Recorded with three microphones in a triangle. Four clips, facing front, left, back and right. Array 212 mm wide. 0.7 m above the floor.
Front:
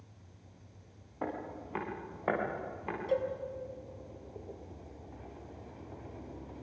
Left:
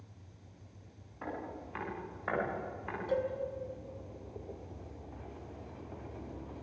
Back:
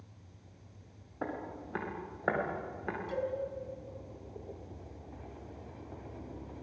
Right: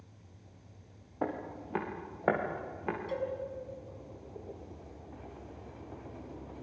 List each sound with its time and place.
1.2 s footsteps: 95° right, 7 m; by 3.0 s 105° right, 8.5 m
3.1 s a cowbell: 35° left, 6 m